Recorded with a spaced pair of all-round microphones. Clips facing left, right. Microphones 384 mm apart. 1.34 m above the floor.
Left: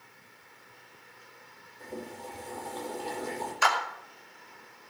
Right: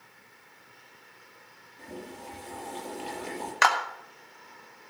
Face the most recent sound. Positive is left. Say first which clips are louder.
# right 3 dB
turn(degrees=-80)